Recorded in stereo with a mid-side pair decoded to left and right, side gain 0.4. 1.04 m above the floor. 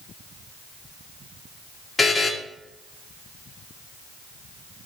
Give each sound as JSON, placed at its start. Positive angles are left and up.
{"t": 2.0, "sound": "a buzzer", "azimuth_deg": 30, "distance_m": 2.0}